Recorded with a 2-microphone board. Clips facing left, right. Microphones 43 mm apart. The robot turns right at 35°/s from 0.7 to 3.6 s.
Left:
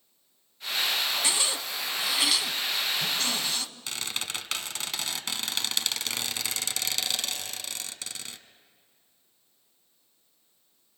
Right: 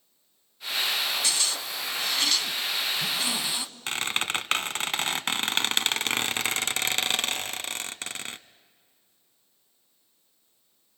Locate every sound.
1.2 s a zipper: 130° left, 0.7 m; by 3.6 s 150° right, 0.7 m
3.9 s a squeak: 45° right (ahead or behind), 0.5 m